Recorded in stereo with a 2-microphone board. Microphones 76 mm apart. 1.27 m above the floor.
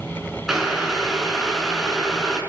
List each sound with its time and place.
0.5 s boiling: 5° right (ahead or behind), 4.5 m